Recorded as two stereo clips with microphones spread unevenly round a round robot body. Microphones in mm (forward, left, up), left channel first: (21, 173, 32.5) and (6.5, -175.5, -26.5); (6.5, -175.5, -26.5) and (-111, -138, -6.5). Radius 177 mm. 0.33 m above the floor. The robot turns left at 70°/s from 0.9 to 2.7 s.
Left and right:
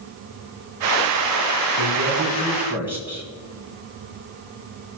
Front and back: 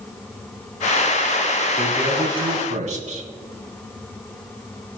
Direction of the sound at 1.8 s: 110° right.